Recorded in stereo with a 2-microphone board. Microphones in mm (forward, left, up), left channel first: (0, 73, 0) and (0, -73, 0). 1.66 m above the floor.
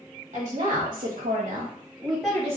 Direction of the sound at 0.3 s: 50° right (ahead or behind).